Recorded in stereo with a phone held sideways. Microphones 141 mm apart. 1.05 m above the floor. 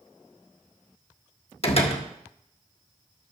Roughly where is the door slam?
Left.